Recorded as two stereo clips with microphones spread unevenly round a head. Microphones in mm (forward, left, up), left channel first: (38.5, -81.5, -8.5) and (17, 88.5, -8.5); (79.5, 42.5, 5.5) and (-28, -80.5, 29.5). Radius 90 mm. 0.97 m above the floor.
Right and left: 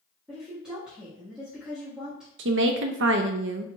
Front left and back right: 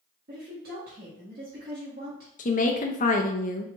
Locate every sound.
0.3 s a woman speaking: 175° right, 1.0 m
2.4 s a woman speaking: 90° left, 0.5 m